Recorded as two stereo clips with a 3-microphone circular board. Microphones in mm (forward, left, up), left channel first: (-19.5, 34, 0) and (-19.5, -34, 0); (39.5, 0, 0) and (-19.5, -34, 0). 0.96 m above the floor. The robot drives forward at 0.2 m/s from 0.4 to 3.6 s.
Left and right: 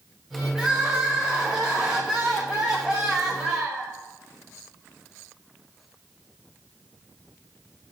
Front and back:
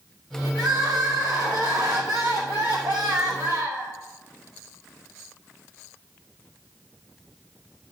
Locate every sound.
0.6 s crying: 165° right, 1.7 m; by 3.9 s 170° right, 2.5 m